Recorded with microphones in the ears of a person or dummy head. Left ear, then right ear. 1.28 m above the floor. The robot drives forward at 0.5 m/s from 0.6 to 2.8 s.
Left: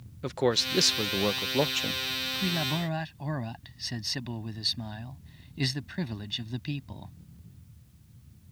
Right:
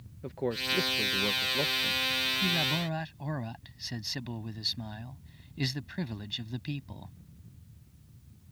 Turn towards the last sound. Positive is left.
turn(degrees=5)  # may be behind; listen again after turning